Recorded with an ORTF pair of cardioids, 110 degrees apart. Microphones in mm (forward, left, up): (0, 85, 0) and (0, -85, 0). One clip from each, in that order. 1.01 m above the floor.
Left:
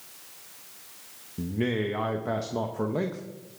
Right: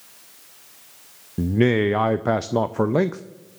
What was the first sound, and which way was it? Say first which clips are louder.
A man speaking: right 9 dB; 45° right.